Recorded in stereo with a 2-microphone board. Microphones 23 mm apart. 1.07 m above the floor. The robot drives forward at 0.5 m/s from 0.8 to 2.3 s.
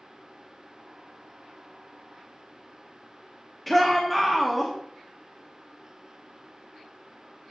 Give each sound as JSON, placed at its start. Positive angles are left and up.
{"t": 3.7, "sound": "a shout", "side_deg": 5, "distance_m": 0.9}